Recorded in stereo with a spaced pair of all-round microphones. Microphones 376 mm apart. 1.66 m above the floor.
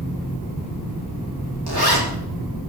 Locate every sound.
1.7 s a zipper: 70° right (ahead or behind), 4.5 m